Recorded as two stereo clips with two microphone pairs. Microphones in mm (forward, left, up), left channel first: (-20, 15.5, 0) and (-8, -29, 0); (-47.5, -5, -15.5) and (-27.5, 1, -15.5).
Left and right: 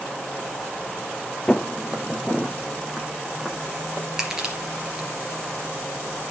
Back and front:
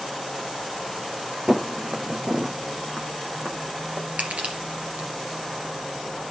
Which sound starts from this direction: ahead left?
Footsteps, at 1.5 s.